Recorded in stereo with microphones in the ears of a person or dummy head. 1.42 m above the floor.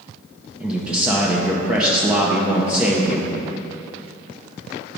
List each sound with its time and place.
0.6 s a man speaking: 5° right (ahead or behind), 0.8 m